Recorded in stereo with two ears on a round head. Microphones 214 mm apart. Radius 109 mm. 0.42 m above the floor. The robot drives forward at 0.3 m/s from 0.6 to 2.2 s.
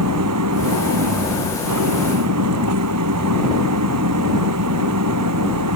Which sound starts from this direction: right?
An engine running, at 0.0 s.